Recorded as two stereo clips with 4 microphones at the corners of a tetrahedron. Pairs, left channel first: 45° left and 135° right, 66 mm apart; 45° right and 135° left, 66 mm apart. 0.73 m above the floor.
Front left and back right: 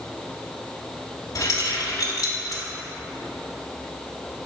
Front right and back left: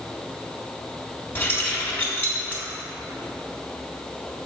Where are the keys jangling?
15° left, 1.4 m.